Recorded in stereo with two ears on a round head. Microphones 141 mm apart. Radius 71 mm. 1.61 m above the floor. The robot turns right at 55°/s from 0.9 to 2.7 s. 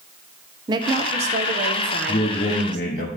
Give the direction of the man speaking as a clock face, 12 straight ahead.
11 o'clock.